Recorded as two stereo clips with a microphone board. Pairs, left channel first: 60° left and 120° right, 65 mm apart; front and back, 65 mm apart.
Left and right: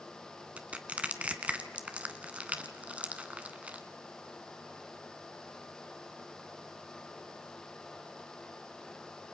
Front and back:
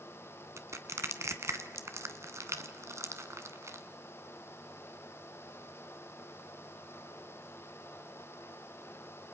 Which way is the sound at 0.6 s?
Straight behind.